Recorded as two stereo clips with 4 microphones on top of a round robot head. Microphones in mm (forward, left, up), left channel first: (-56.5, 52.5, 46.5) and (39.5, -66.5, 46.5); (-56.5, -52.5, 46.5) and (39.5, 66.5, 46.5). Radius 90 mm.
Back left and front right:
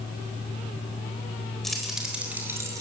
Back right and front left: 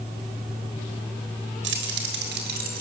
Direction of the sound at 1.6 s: 40° left.